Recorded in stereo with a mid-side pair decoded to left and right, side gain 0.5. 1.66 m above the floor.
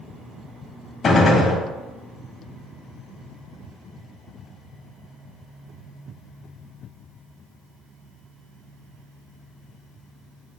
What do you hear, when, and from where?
1.0 s a gunshot: 50° left, 0.8 m